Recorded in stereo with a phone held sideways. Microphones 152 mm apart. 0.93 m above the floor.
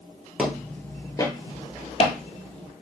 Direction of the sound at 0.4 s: 5° right (ahead or behind).